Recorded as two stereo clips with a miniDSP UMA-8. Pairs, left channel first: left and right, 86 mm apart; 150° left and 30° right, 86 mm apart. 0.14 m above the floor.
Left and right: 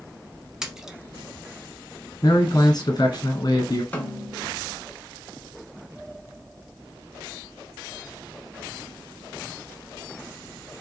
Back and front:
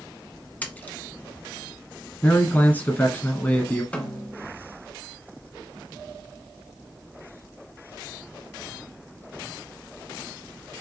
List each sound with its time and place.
0.6 s a splash: 165° right, 1.0 m
2.2 s a man speaking: 90° left, 1.6 m
3.9 s a snare drum: 110° left, 1.3 m